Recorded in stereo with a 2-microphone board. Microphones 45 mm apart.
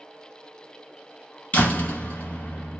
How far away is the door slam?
About 2 m.